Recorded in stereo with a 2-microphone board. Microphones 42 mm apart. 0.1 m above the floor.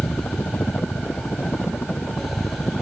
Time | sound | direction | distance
0.0 | a helicopter | 65° left (ahead or behind) | ?